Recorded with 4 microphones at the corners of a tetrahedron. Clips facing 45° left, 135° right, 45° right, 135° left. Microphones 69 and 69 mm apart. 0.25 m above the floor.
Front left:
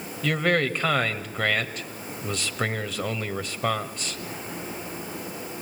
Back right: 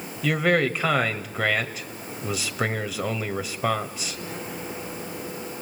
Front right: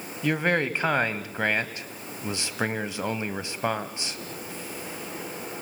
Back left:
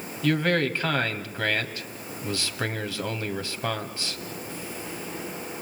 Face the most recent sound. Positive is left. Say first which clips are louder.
# back right 2 dB, back left 1 dB
turn(degrees=-55)